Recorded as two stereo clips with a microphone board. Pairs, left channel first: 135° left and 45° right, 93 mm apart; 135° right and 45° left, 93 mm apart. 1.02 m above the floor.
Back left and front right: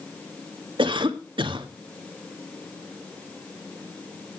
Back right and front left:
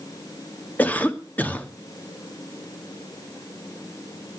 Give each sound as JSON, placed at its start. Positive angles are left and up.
{"t": 0.8, "sound": "a cough", "azimuth_deg": -65, "distance_m": 1.9}